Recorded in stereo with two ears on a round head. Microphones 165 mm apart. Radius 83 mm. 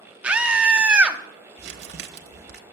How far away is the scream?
About 1.0 m.